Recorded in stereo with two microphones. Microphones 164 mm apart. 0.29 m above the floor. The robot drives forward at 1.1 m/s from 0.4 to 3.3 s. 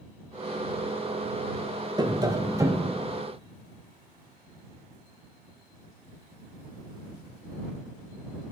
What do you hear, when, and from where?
2.0 s tapping: 25° right (ahead or behind), 1.0 m; by 3.0 s 15° right (ahead or behind), 1.5 m